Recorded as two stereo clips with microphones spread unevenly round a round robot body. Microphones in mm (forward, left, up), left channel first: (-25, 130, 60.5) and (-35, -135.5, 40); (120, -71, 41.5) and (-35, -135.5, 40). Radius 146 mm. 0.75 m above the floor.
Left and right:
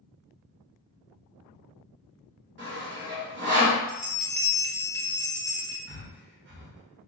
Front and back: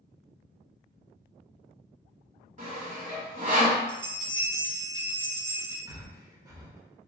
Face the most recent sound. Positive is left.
turn(degrees=-100)